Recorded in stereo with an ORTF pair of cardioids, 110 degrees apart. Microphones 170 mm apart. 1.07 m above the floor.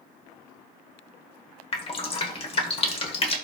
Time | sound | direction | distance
1.7 | dripping | 35° left | 1.6 m